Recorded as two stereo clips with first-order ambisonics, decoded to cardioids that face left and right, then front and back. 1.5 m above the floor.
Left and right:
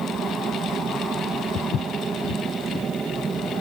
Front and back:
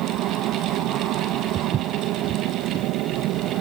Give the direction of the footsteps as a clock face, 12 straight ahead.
8 o'clock.